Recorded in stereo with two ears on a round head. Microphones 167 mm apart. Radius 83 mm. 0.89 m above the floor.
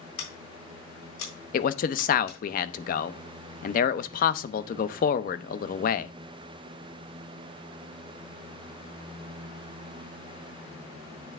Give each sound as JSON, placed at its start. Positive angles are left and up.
{"t": 0.2, "sound": "scissors", "side_deg": 85, "distance_m": 4.0}
{"t": 1.5, "sound": "a man speaking", "side_deg": 45, "distance_m": 0.5}